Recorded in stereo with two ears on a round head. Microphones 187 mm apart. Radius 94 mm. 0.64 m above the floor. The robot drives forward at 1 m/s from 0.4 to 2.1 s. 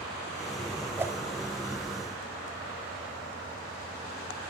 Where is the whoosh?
10° right (ahead or behind), 0.5 m.